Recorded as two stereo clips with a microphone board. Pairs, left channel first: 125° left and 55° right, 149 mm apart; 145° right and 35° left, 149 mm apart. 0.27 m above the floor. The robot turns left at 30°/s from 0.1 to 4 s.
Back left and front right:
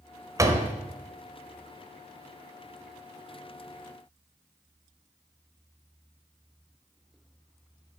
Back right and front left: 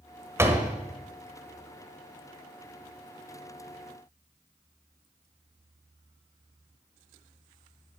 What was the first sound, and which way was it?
A door slam, 15° right.